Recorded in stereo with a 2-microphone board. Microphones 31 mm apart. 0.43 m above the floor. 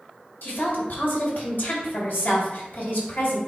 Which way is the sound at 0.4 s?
60° left (ahead or behind).